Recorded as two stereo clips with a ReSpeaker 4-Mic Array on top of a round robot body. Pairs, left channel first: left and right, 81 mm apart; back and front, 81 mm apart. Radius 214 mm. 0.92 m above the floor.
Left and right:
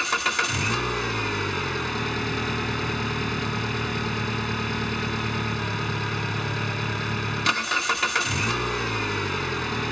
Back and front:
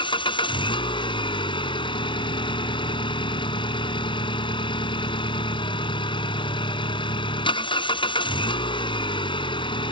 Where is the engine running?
Straight behind.